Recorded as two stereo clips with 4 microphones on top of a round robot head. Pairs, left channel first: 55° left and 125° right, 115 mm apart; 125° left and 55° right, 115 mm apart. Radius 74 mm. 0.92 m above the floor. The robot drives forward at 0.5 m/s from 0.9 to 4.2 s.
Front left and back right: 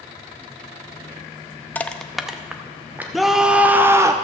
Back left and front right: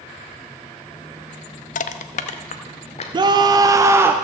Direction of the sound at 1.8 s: 130° left.